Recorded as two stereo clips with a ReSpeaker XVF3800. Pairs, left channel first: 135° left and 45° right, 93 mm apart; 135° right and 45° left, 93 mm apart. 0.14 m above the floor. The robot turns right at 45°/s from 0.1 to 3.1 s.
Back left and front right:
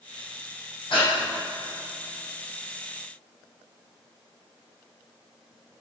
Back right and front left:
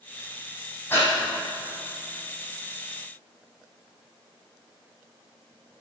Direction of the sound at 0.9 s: 160° left.